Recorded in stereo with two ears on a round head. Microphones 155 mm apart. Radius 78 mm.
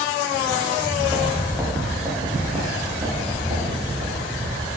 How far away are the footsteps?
About 1.8 m.